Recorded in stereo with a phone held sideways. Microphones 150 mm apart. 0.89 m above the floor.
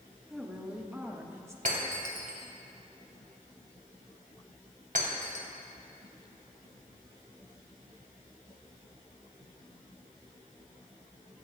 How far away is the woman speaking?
About 1.5 m.